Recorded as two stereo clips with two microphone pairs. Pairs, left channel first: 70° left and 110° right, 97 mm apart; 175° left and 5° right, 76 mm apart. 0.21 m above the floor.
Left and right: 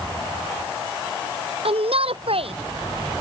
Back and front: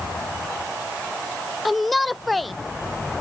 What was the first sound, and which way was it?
A shout, 95° right.